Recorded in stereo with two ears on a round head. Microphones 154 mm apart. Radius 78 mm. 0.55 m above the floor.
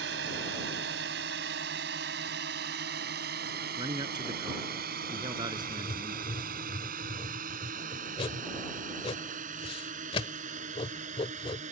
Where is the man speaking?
25° right (ahead or behind).